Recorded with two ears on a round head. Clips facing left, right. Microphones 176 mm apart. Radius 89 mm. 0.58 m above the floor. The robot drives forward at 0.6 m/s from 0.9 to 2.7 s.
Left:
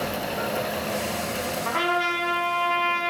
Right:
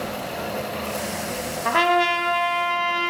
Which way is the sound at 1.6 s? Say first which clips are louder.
Right 9 dB; 60° right (ahead or behind).